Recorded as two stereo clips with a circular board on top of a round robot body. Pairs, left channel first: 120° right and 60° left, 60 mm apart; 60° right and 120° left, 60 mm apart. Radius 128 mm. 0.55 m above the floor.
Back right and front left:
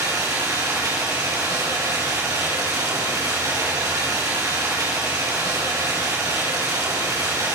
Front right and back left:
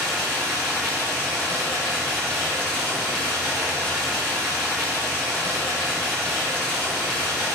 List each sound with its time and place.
0.0 s running water: 60° left, 5 m